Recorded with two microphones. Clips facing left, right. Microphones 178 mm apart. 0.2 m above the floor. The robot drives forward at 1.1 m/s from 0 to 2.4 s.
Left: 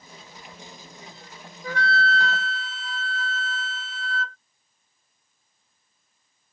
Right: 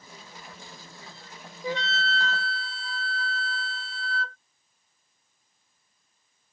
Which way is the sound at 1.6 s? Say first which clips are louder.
Left 4 dB; 20° right (ahead or behind).